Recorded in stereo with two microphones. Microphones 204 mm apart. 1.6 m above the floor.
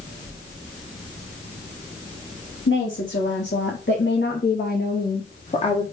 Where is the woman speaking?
75° left (ahead or behind), 2.5 m; by 5.8 s 25° left (ahead or behind), 1.5 m.